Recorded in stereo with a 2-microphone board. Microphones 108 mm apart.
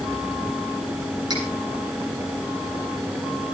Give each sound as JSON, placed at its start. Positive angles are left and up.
{"t": 1.3, "sound": "cutlery clinking", "side_deg": -40, "distance_m": 8.5}